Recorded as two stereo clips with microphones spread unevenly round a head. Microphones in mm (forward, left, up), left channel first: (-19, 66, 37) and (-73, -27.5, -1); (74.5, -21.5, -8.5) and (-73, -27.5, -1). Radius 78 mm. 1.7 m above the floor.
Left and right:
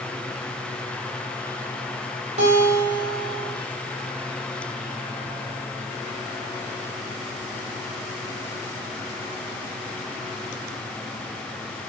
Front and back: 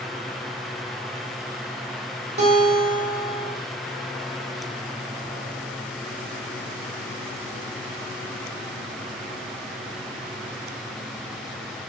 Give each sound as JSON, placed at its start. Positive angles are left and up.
{"t": 2.4, "sound": "a guitar", "azimuth_deg": -135, "distance_m": 4.0}